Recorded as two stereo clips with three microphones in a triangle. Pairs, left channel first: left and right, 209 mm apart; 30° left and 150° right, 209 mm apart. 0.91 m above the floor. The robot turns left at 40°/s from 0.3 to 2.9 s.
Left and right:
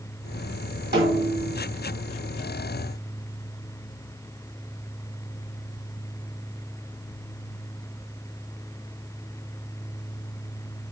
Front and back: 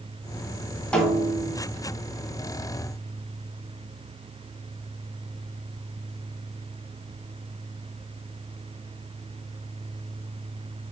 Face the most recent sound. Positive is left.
turn(degrees=-135)